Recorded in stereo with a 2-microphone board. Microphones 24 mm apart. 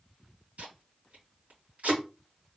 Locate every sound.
0.6 s tape being pulled: 75° right (ahead or behind), 2.5 m